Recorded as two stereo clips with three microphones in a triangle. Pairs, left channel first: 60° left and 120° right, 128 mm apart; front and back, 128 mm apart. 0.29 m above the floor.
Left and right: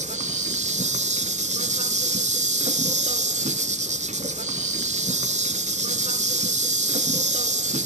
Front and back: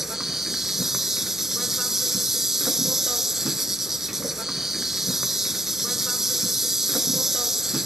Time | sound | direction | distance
0.0 | an insect | 90° right | 0.8 m